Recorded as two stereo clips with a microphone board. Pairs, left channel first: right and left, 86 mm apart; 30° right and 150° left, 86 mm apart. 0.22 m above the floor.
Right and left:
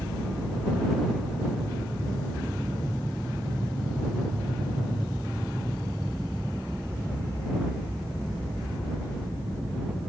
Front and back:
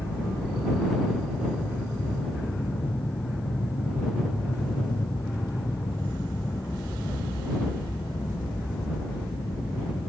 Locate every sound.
0.0 s an aircraft: straight ahead